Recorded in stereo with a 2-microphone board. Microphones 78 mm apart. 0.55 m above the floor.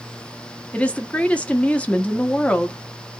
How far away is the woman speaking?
About 0.6 m.